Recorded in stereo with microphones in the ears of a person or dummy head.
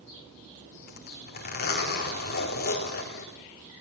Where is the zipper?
50° left (ahead or behind), 4 m.